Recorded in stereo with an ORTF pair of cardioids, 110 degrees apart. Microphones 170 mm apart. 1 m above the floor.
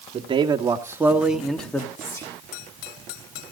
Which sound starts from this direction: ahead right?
A man speaking, at 0.1 s.